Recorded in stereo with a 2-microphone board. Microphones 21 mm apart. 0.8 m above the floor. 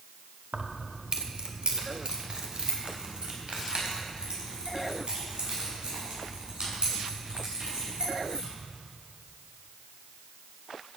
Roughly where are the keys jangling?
Right.